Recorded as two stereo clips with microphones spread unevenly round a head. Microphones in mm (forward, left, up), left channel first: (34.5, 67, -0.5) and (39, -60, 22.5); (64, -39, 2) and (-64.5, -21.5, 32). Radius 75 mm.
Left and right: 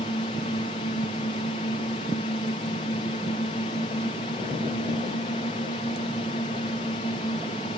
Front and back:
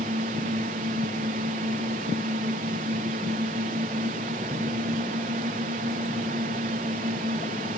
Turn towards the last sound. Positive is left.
turn(degrees=140)